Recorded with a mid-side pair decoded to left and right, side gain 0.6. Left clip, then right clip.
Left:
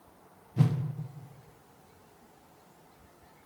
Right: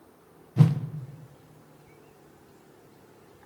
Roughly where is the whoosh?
Ahead.